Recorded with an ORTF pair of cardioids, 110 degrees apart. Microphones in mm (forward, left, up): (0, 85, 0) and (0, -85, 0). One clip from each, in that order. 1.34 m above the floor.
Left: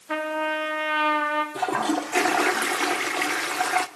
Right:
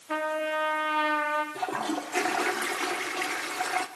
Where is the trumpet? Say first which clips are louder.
Left 3 dB; 20° left, 2.5 m.